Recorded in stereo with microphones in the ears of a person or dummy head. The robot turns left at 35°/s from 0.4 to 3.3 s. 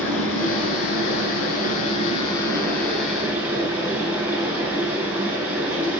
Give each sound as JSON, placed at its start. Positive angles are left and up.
{"t": 0.0, "sound": "running water", "azimuth_deg": 95, "distance_m": 7.5}